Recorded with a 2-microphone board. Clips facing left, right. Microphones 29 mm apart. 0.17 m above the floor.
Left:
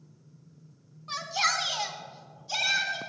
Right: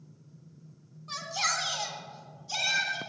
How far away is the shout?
About 1.3 m.